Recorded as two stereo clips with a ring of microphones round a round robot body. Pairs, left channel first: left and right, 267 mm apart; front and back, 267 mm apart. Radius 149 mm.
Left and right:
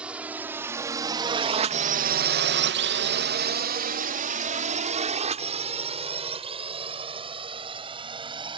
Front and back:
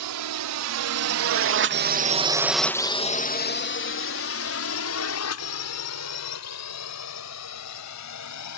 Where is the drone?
175° right; by 8.6 s 20° right.